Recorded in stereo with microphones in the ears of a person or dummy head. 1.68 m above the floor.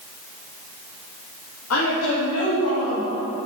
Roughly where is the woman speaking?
Left.